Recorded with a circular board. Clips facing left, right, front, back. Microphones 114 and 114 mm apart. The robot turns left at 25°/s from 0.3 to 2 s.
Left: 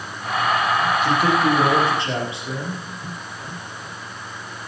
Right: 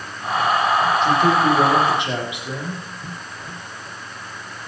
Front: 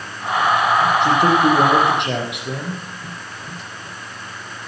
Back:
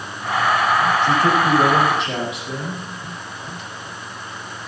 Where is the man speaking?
5° left, 5 m; by 2.8 s 15° right, 5 m.